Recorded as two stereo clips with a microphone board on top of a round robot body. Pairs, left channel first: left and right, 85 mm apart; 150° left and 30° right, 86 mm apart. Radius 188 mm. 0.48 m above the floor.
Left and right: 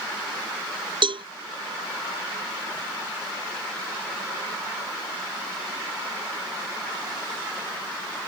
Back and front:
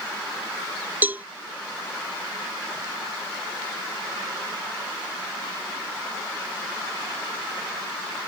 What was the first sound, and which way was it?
A cowbell, 100° right.